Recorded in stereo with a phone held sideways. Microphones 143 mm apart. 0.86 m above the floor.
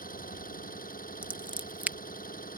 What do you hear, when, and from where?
0.0 s an engine running: 80° left
1.2 s scissors: 10° right (ahead or behind)